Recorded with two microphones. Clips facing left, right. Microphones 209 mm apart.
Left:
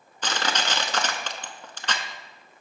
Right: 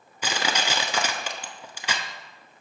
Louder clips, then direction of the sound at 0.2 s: Right 1 dB; 10° right (ahead or behind).